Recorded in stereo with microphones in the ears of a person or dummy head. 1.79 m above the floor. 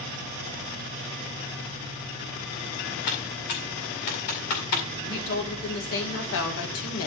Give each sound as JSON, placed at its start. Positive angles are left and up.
{"t": 3.1, "sound": "typing on a keyboard", "side_deg": 50, "distance_m": 2.0}
{"t": 5.0, "sound": "a woman speaking", "side_deg": 80, "distance_m": 2.5}